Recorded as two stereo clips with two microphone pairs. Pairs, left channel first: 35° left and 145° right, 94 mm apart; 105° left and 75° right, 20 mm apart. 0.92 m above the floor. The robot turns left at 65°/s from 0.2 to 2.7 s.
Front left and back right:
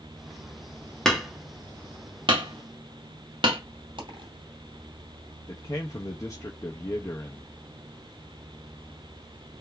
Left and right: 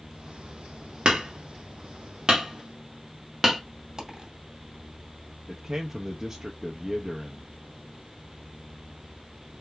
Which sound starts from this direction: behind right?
A dropped coin, at 4.0 s.